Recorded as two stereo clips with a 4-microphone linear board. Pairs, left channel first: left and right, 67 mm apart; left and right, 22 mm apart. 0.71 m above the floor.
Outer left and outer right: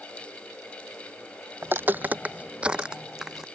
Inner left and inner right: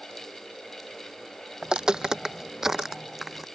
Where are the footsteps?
35° right (ahead or behind); by 3.5 s 5° right (ahead or behind).